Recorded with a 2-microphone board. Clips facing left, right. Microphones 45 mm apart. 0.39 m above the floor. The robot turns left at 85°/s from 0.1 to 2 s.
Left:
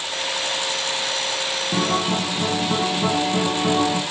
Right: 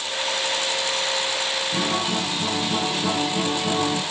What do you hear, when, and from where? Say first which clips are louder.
1.7 s a guitar: left 5 dB; 55° left (ahead or behind), 10 m; by 4.0 s 35° left (ahead or behind), 10 m